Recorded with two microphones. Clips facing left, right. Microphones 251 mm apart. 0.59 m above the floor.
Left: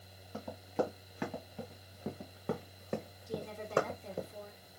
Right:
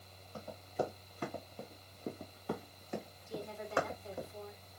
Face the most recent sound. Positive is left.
turn(degrees=75)  # may be behind; listen again after turning